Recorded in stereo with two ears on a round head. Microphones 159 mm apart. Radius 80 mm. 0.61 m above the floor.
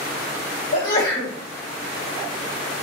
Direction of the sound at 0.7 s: 55° left (ahead or behind).